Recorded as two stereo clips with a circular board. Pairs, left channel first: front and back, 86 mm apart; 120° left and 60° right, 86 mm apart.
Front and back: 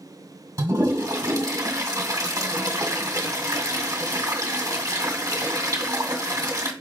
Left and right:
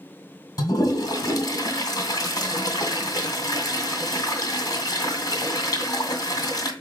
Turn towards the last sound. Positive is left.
turn(degrees=145)